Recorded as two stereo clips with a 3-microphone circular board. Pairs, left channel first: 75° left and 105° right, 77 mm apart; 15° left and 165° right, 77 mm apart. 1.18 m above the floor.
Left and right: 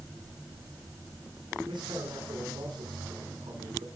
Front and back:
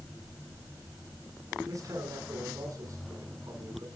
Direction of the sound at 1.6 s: 125° right.